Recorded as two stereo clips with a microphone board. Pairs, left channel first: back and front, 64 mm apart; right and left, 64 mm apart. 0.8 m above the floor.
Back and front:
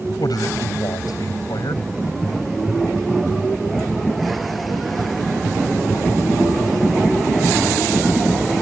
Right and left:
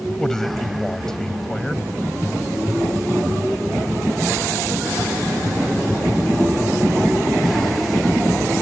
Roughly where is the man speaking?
Behind.